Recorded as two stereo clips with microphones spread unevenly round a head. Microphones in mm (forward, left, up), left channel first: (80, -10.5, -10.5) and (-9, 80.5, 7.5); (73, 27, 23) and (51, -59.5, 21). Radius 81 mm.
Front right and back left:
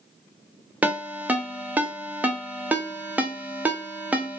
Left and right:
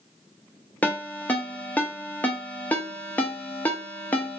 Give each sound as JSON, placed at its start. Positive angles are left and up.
{"t": 0.8, "sound": "a ringtone", "azimuth_deg": 110, "distance_m": 0.5}